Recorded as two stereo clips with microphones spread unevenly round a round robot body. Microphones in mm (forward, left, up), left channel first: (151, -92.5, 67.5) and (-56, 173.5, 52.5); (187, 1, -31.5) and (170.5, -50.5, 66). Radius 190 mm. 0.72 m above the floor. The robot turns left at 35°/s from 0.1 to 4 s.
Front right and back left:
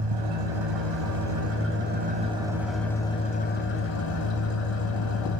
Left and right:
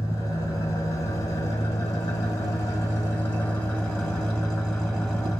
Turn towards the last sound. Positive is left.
turn(degrees=-5)